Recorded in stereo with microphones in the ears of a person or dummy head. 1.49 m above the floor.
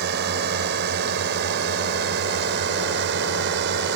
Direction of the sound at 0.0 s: 65° right (ahead or behind).